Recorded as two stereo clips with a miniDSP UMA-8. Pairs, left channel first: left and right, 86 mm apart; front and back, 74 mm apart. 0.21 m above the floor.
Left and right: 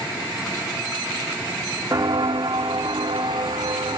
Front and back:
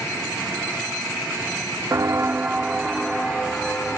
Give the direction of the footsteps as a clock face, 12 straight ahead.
4 o'clock.